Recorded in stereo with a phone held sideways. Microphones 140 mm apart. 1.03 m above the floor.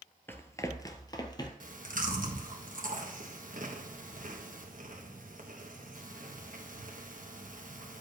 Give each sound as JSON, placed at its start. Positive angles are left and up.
{"t": 0.3, "sound": "running footsteps", "side_deg": 15, "distance_m": 1.0}
{"t": 1.6, "sound": "chewing", "side_deg": -65, "distance_m": 1.3}